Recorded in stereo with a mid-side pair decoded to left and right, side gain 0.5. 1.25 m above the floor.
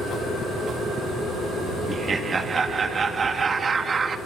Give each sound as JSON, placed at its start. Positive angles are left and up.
{"t": 1.9, "sound": "laughter", "azimuth_deg": -35, "distance_m": 1.9}